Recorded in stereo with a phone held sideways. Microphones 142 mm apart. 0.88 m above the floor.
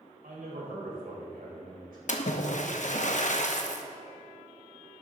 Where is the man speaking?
80° right, 4 m.